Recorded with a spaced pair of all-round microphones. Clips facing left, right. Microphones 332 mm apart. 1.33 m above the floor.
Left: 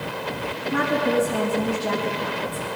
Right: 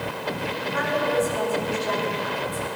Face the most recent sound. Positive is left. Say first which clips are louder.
# left 4 dB
turn(degrees=70)  # may be behind; listen again after turning